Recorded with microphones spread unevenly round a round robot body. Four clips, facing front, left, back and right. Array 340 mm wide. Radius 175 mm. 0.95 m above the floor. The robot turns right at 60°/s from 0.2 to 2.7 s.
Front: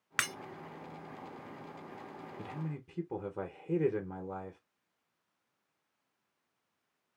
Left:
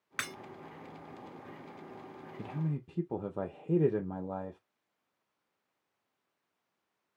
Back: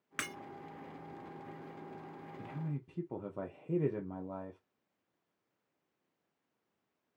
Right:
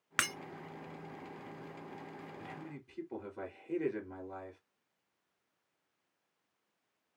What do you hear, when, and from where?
0.2 s breaking glass: 55° right, 2.0 m; by 0.3 s 45° right, 2.0 m
2.4 s a man speaking: 50° left, 1.1 m; by 4.6 s 70° left, 1.1 m